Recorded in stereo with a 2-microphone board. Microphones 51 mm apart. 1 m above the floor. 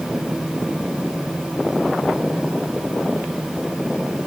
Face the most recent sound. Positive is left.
No sound to turn to.